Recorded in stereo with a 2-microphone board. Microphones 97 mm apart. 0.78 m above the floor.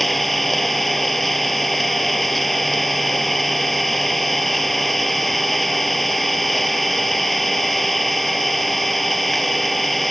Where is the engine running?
5° left (ahead or behind).